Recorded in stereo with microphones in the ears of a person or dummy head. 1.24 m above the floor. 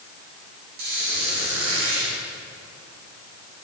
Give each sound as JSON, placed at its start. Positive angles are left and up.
{"t": 0.8, "sound": "a squeak", "side_deg": -65, "distance_m": 7.0}